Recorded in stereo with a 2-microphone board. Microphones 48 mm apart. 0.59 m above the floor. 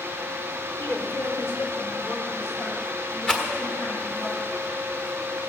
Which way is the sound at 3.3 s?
20° left (ahead or behind).